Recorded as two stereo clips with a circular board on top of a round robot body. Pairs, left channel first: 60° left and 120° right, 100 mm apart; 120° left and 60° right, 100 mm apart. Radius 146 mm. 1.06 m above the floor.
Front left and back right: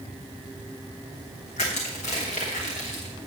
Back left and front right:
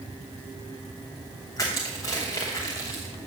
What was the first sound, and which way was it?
Crushing, 60° left.